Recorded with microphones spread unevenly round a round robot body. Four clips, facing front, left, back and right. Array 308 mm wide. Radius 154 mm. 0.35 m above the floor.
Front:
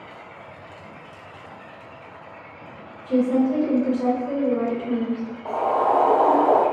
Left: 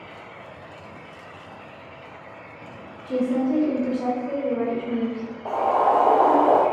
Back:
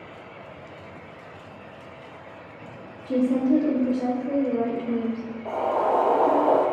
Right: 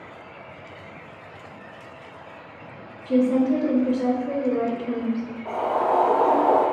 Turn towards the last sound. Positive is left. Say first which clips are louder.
# left 3 dB, front 3 dB
turn(degrees=60)